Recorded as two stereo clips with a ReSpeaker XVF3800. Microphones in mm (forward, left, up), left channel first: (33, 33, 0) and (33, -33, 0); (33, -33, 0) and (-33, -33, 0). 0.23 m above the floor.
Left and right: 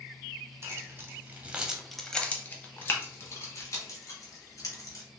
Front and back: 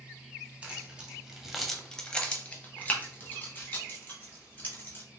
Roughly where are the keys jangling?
Behind right.